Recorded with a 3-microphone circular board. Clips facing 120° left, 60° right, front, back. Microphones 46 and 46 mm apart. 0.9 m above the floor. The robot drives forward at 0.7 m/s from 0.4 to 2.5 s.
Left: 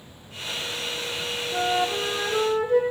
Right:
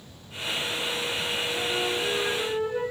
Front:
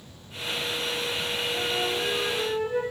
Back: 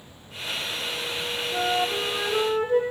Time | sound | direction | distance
1.5 | a flute | 140° left | 5 m